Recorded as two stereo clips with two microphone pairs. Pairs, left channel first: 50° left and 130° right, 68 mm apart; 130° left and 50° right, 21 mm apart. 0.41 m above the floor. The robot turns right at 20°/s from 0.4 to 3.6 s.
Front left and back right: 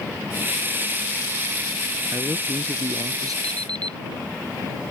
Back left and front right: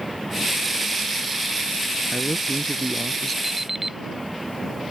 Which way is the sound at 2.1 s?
175° right.